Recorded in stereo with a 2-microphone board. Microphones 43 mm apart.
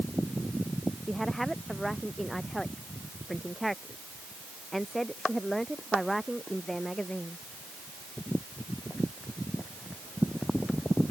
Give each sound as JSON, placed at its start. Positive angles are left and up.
{"t": 1.1, "sound": "a woman speaking", "side_deg": 5}